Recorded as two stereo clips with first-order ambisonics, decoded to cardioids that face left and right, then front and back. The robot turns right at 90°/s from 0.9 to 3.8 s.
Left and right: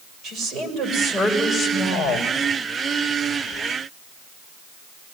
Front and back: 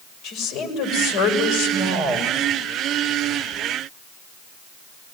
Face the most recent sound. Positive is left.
turn(degrees=-140)